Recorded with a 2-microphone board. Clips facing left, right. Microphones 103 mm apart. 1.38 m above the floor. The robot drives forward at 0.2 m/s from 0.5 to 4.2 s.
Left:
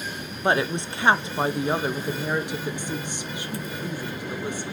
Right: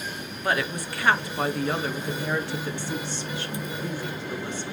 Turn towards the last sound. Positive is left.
turn(degrees=15)  # may be behind; listen again after turning